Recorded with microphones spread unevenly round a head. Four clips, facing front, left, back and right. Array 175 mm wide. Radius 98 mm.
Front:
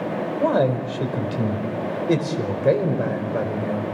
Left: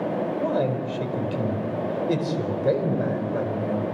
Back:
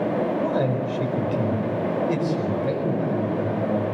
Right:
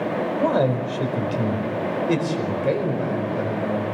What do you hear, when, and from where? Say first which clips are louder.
0.4 s a man speaking: right 6 dB, front 3 dB; 35° right, 4.5 m; by 3.9 s 5° left, 5 m